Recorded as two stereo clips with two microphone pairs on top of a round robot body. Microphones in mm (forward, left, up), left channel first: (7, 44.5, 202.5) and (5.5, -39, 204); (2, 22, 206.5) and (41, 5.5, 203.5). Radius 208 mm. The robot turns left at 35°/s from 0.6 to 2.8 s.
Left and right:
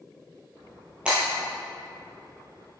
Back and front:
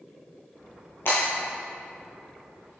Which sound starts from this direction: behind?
Breaking glass, at 1.1 s.